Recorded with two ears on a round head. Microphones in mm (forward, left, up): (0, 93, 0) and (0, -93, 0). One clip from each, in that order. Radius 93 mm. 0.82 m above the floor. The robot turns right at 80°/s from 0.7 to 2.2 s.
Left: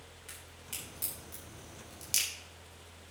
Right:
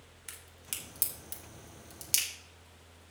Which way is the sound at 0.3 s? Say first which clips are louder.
Right 2 dB; 45° right (ahead or behind).